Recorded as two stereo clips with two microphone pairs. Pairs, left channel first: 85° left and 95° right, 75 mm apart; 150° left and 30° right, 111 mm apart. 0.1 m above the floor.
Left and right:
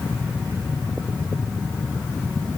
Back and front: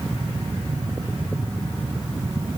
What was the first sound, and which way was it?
Only background noise.